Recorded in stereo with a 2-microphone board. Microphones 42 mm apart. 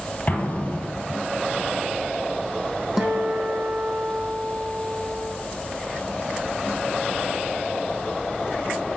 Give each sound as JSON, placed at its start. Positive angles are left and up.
{"t": 0.3, "sound": "an explosion", "side_deg": 30, "distance_m": 2.5}
{"t": 3.0, "sound": "a guitar", "side_deg": -15, "distance_m": 1.5}